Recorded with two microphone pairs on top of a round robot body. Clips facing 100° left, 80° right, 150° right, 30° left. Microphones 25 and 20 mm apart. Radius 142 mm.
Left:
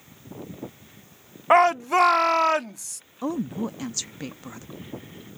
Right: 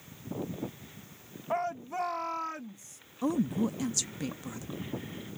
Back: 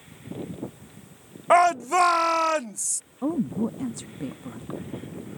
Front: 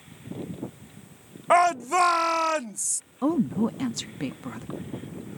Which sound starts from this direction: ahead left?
A woman speaking, at 3.2 s.